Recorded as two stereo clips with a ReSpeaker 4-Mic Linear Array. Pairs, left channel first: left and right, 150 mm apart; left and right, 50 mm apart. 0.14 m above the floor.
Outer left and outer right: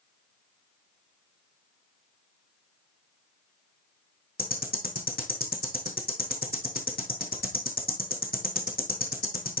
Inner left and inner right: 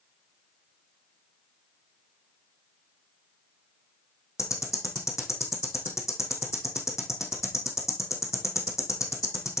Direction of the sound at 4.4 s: 80° left.